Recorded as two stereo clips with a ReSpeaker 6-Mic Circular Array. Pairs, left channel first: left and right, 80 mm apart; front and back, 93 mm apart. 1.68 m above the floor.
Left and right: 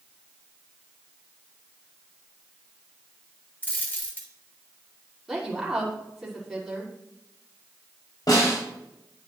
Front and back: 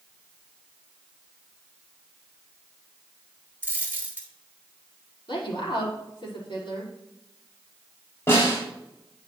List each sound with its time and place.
3.6 s a dropped coin: 135° left, 1.5 m
5.3 s a woman speaking: straight ahead, 5 m
8.3 s a snare drum: 60° left, 6 m